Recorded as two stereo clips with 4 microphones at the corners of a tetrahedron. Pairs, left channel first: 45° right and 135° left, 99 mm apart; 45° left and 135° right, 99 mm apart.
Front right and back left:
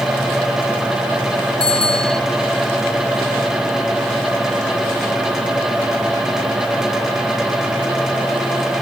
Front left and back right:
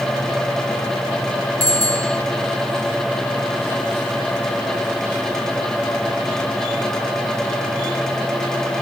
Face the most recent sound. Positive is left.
turn(degrees=175)